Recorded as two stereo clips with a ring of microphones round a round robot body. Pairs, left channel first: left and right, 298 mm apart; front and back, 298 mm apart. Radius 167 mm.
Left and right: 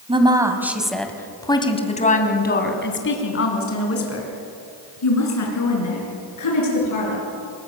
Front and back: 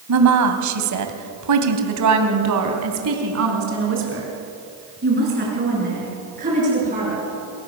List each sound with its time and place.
0.1 s a woman speaking: 160° right, 3 m; by 7.2 s 110° left, 7.5 m